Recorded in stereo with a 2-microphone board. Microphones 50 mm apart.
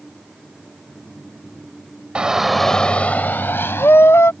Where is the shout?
20° right (ahead or behind); by 4.3 s 65° left (ahead or behind).